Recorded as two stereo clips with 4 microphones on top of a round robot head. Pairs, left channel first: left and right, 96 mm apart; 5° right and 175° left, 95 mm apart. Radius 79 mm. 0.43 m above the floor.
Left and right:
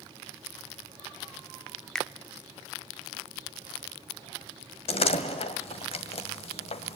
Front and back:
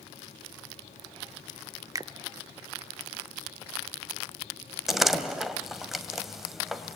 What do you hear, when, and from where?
1.9 s a finger snap: 170° left, 0.7 m
4.9 s a door slam: 90° left, 2.0 m